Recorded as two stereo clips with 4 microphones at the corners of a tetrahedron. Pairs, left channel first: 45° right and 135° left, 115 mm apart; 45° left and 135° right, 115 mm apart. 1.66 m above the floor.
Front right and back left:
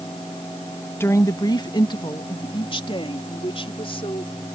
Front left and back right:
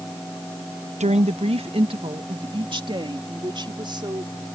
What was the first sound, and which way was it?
A woman speaking, 115° right.